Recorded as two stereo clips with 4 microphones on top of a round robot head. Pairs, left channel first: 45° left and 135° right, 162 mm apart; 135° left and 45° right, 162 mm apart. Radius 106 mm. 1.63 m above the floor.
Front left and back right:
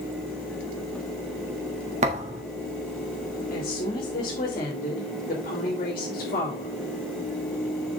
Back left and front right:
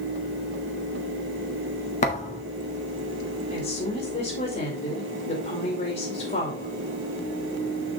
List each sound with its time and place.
2.0 s a thud: straight behind, 1.4 m
3.5 s a woman speaking: 95° left, 3.5 m